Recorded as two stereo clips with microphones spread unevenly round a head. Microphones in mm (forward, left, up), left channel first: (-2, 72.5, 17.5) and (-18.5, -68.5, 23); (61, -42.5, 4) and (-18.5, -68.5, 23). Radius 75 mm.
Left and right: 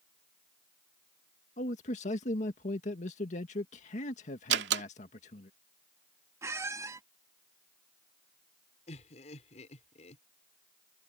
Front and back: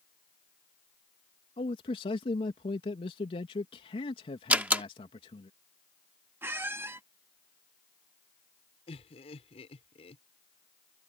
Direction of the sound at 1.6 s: 40° left.